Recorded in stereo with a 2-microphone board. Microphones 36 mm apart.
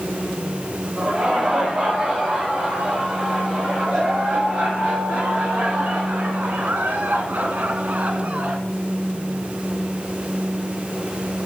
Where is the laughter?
30° right (ahead or behind), 6 m; by 8.6 s 35° right (ahead or behind), 2.5 m.